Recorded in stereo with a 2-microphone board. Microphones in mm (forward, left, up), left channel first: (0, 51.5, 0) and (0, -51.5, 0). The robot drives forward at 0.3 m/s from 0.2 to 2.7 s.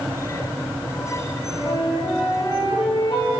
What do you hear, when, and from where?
1.5 s a flute: 55° left (ahead or behind), 4 m; by 3.3 s 50° left (ahead or behind), 4 m